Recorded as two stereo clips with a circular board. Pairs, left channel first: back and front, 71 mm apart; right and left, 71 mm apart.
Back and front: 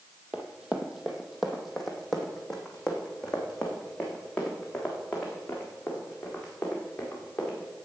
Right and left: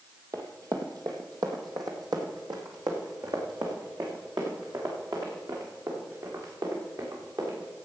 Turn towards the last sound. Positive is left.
turn(degrees=110)